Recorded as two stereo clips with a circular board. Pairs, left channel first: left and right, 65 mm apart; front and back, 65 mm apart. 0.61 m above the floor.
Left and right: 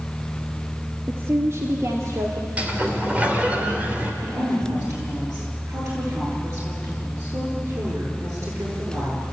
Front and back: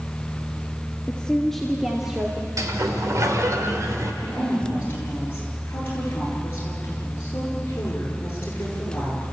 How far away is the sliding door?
About 2.5 m.